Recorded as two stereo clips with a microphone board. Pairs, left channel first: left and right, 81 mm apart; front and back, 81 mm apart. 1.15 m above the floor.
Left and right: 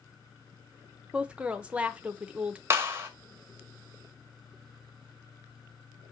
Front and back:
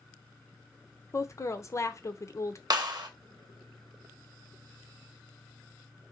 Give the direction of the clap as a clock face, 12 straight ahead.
5 o'clock.